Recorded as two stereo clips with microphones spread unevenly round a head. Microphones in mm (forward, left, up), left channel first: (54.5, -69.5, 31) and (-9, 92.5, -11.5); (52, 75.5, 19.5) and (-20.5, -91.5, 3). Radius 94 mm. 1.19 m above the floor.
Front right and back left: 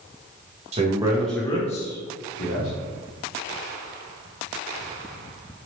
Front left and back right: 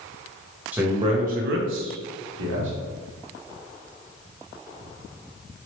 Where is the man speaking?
165° left, 0.6 m; by 2.7 s 95° right, 1.0 m.